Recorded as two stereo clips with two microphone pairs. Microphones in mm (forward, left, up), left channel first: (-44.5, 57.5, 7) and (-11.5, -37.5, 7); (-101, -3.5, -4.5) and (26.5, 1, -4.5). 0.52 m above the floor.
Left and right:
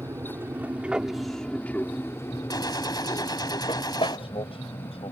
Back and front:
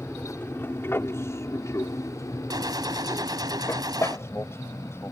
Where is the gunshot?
60° left.